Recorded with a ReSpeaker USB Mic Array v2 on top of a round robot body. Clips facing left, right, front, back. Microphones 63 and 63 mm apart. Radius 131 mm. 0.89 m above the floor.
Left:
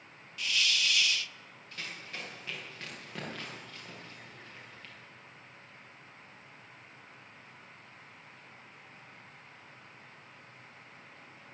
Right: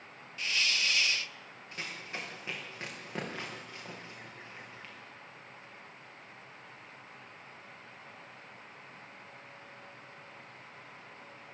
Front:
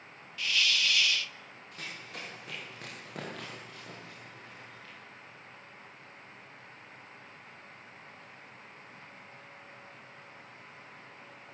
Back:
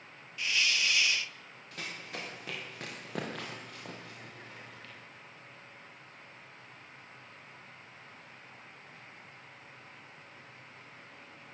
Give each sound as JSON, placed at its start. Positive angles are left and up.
{"t": 0.4, "sound": "a hiss", "azimuth_deg": -125, "distance_m": 0.7}
{"t": 1.7, "sound": "running footsteps", "azimuth_deg": -160, "distance_m": 7.5}